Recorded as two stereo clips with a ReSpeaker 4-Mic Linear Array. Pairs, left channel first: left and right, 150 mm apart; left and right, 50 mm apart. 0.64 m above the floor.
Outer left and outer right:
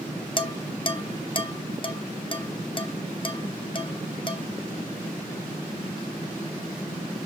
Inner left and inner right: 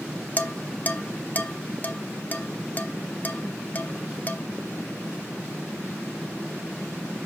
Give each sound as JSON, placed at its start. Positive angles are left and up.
{"t": 0.4, "sound": "dishes clattering", "side_deg": 35, "distance_m": 0.9}